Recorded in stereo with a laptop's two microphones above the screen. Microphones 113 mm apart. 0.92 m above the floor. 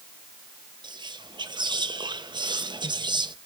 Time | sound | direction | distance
0.8 | whispering | 40° right (ahead or behind) | 0.5 m